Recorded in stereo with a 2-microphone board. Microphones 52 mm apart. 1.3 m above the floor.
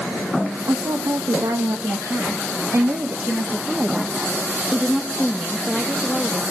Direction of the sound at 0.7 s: 80° right.